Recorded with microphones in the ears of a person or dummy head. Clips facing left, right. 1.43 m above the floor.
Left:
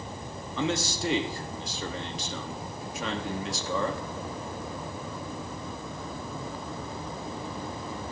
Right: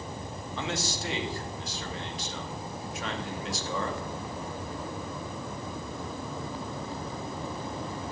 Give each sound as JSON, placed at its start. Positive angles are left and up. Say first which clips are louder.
{"t": 0.6, "sound": "a man speaking", "louder": "left 5 dB", "side_deg": 80, "distance_m": 2.5}